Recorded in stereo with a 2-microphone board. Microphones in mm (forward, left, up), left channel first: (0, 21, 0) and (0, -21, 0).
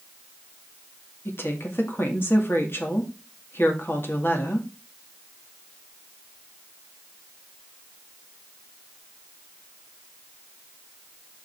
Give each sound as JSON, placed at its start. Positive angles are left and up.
{"t": 1.2, "sound": "a woman speaking", "side_deg": 65, "distance_m": 2.0}